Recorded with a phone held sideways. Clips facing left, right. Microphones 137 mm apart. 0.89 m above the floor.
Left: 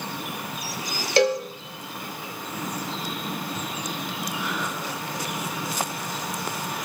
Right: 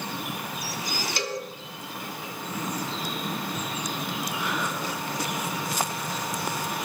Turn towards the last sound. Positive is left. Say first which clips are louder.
# left 15 dB
turn(degrees=70)  # may be behind; listen again after turning